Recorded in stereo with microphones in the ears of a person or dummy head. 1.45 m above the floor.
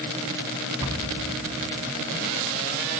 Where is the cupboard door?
20° right (ahead or behind), 1.3 m.